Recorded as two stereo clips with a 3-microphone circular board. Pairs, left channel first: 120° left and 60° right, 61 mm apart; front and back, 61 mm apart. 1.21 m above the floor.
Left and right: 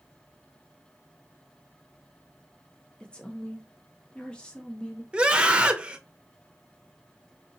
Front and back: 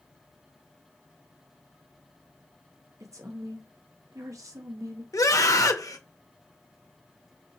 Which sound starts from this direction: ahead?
A scream, at 5.1 s.